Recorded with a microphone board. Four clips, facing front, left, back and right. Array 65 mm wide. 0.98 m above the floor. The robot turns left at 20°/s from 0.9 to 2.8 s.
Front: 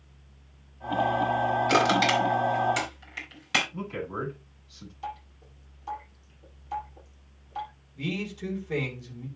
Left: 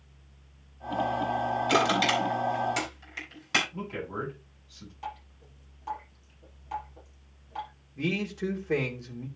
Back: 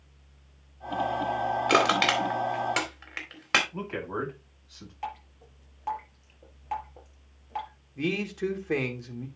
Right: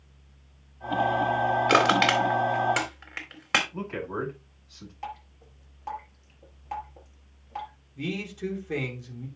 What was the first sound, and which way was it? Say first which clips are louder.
Crushing: right 3 dB, even; 115° right.